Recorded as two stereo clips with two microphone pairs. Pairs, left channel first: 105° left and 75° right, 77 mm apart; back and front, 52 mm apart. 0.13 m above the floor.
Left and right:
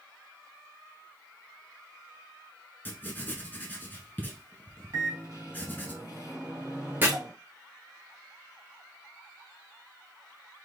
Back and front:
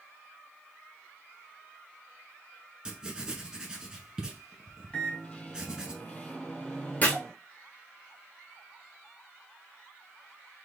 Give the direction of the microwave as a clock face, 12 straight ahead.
4 o'clock.